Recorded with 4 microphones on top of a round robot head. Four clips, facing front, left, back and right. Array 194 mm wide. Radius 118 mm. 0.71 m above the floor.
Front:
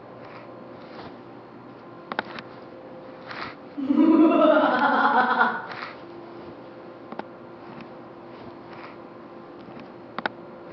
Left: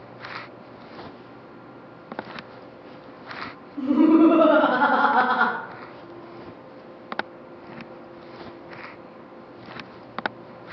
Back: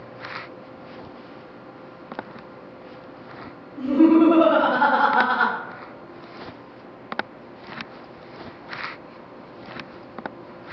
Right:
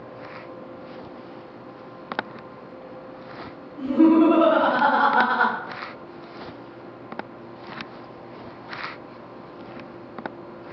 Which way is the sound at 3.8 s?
95° left.